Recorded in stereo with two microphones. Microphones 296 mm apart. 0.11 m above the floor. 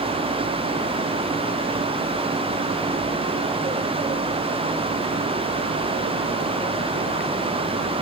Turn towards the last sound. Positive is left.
No sound to turn to.